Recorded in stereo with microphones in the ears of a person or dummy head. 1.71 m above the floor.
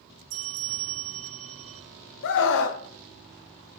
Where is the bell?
75° right (ahead or behind), 0.8 m.